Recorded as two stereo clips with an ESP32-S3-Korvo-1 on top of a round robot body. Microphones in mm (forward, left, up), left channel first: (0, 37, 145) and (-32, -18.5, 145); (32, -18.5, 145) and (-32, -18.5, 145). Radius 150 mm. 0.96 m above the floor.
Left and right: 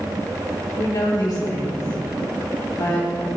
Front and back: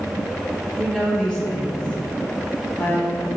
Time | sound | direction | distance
0.8 | a woman speaking | 85° left | 4.5 m